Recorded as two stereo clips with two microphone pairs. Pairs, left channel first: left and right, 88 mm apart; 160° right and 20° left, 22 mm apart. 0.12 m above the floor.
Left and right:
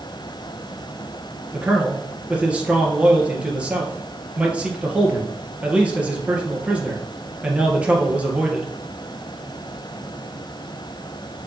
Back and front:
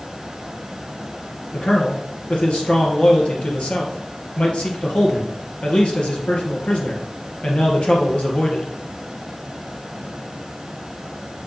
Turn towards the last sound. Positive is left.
turn(degrees=-165)